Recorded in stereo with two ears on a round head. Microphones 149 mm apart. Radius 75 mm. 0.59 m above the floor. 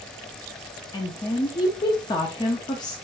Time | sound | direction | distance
0.9 | a woman speaking | 25° left (ahead or behind) | 0.8 m